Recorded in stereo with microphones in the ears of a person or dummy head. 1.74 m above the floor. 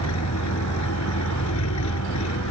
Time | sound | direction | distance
0.0 | an engine running | 85° left | ?